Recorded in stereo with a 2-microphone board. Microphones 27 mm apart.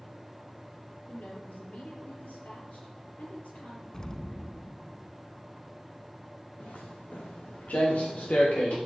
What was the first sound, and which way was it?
A woman speaking, 70° left (ahead or behind).